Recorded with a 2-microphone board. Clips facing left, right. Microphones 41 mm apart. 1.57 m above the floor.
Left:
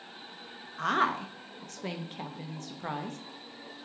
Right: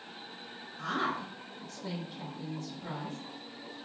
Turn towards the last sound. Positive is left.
turn(degrees=55)  # may be behind; listen again after turning